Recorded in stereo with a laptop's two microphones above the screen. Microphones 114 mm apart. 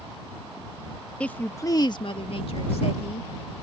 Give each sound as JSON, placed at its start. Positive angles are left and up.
{"t": 1.2, "sound": "a woman speaking", "side_deg": 10}